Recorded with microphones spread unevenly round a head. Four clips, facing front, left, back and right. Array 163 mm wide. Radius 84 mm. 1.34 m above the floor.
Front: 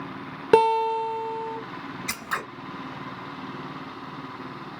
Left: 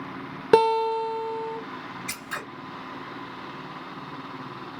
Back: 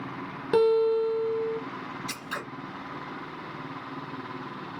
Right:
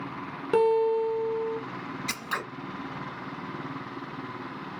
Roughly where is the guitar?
Ahead left.